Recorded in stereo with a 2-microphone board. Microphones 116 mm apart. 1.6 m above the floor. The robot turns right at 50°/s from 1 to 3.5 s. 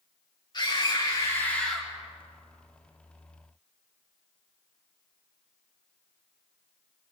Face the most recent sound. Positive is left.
turn(degrees=-95)